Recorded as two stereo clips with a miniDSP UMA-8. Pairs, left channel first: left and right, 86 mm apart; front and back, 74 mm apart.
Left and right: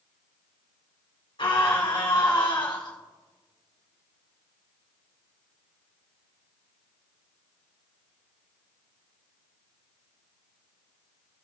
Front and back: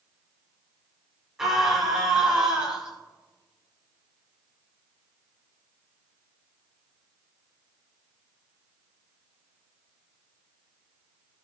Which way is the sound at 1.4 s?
100° left.